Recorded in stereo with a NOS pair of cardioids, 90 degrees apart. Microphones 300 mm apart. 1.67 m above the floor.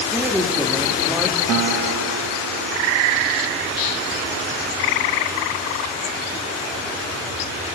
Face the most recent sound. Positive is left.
turn(degrees=-65)